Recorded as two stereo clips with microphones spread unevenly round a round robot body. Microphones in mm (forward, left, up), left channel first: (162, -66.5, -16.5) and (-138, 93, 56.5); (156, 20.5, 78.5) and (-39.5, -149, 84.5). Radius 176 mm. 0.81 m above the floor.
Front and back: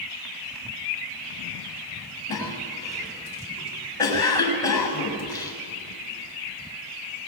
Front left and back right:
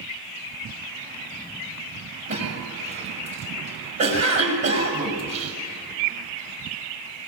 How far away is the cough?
About 6.5 m.